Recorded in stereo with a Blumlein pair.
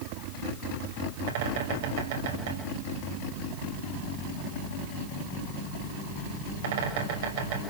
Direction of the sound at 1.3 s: 55° right.